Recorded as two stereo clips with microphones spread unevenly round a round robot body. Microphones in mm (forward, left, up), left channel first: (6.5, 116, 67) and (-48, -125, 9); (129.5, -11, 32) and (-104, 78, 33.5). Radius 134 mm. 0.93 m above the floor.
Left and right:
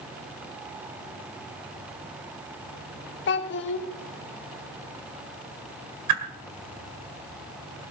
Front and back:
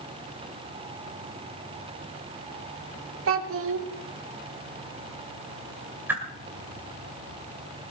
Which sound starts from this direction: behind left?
A child speaking, at 3.3 s.